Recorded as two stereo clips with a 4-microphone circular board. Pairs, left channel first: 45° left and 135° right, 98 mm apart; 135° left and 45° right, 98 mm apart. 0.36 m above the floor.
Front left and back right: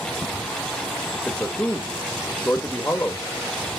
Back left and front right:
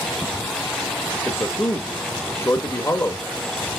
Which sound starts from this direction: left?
A man speaking, at 1.1 s.